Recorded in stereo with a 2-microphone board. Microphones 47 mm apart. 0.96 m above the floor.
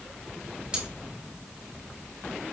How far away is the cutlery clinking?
About 3.5 m.